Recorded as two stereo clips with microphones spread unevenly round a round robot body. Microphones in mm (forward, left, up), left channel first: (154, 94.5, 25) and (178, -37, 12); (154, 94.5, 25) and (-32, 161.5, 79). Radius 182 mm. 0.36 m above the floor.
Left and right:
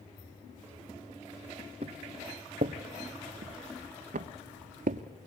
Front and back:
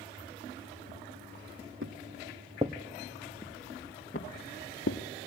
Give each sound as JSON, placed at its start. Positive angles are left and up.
{"t": 1.8, "sound": "footsteps", "azimuth_deg": -150, "distance_m": 1.4}